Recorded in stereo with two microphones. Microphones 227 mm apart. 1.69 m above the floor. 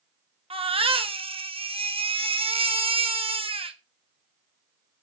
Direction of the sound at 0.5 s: 25° right (ahead or behind).